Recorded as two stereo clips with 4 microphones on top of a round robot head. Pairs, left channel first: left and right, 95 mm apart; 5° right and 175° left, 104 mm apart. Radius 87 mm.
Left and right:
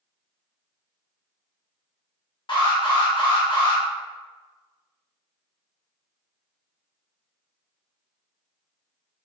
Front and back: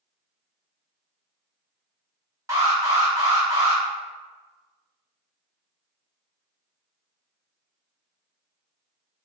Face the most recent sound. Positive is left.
turn(degrees=120)